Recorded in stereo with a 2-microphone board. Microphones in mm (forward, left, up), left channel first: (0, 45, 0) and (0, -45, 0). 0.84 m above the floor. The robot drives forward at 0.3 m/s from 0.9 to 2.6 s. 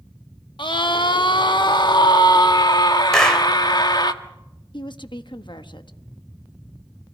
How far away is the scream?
About 1.5 m.